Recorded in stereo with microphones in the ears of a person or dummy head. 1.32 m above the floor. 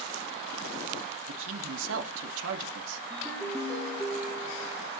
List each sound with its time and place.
1.3 s a man speaking: 70° right (ahead or behind), 2.5 m
3.1 s a ringtone: 10° left (ahead or behind), 6 m